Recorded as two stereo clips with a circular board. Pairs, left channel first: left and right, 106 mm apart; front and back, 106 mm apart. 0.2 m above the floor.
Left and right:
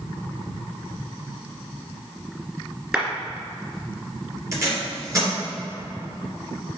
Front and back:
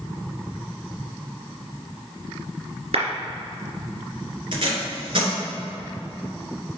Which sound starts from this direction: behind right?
Tape being pulled, at 4.5 s.